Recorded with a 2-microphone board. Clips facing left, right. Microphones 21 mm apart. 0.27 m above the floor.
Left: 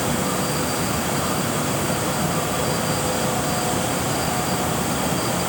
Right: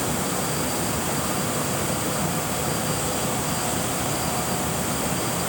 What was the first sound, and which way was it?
Only background noise.